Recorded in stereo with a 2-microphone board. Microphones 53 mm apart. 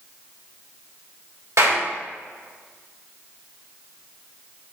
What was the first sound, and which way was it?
A clap, 75° right (ahead or behind).